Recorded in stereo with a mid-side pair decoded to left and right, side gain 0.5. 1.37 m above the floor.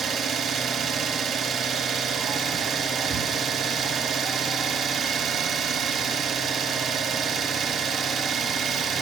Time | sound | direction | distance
0.0 | an engine running | 70° right | 2.5 m